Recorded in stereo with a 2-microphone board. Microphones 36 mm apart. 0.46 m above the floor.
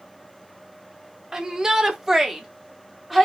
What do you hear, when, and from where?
1.3 s a shout: 20° right (ahead or behind), 1.3 m; by 3.3 s 5° right (ahead or behind), 1.3 m